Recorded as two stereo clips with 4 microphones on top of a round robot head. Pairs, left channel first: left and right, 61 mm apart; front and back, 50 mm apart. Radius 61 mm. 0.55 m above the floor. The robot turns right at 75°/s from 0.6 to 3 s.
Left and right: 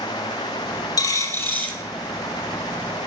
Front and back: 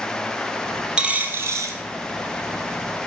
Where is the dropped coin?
105° left, 2.5 m; by 1.8 s 165° left, 2.5 m.